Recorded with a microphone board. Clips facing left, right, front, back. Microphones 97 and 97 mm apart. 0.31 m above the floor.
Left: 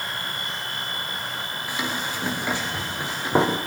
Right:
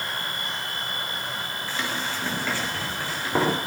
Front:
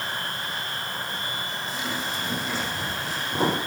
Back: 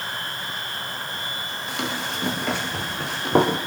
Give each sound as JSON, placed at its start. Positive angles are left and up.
{"t": 1.7, "sound": "running footsteps", "azimuth_deg": 165, "distance_m": 8.5}